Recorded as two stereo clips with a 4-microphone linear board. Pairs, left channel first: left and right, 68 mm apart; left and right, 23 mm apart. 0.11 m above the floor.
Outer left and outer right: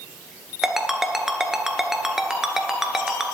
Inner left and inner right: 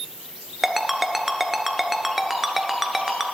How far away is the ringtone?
About 0.9 m.